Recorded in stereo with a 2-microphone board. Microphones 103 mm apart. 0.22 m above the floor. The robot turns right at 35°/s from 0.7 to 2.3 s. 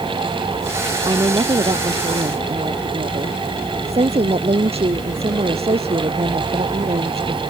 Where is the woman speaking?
140° right; by 7.4 s 95° right.